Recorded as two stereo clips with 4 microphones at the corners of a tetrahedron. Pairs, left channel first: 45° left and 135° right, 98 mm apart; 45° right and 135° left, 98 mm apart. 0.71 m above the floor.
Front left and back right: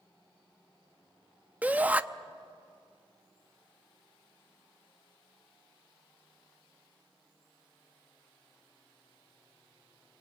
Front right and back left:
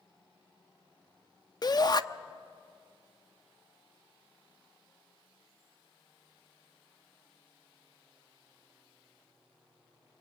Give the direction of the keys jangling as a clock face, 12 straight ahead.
No keys jangling in this recording.